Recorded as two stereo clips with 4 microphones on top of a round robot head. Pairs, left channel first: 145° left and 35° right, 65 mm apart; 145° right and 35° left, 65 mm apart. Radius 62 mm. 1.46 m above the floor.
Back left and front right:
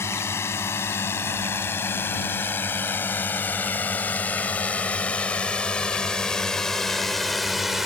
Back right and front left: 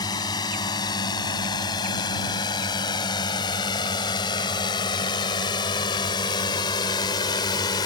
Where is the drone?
165° right; by 7.9 s 120° right.